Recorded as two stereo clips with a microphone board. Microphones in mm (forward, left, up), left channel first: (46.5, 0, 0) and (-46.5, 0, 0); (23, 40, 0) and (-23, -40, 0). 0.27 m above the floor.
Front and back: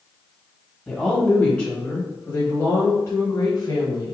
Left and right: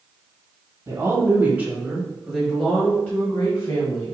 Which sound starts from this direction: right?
A woman speaking, at 0.9 s.